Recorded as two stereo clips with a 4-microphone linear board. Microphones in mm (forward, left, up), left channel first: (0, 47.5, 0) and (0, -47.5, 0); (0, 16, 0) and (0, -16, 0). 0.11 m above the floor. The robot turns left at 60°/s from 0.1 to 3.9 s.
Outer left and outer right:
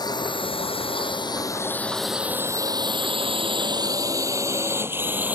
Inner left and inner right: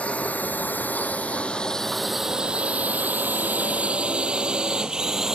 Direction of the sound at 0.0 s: 45° left (ahead or behind).